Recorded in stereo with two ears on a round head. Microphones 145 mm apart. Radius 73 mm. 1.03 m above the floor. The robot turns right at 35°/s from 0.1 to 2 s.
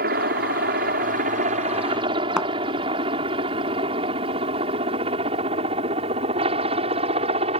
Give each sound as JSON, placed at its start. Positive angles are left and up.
{"t": 0.0, "sound": "a helicopter", "side_deg": -60}
{"t": 2.4, "sound": "a thud", "side_deg": -5}